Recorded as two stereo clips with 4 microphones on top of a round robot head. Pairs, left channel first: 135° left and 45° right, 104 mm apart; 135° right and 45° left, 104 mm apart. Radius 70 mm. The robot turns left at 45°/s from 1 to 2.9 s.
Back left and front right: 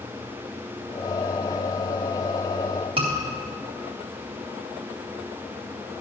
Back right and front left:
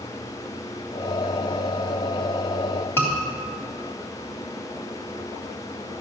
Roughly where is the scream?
Ahead right.